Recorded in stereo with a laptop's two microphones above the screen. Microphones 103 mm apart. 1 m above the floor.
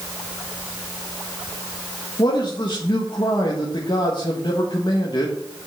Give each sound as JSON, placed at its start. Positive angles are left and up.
{"t": 2.2, "sound": "a man speaking", "side_deg": 50, "distance_m": 1.4}